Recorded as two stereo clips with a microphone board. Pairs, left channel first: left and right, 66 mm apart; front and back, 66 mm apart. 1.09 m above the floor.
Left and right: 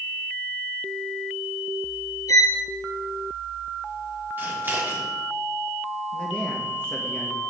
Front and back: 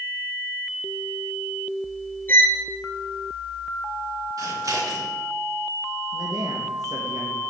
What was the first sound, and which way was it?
A violin, 60° left.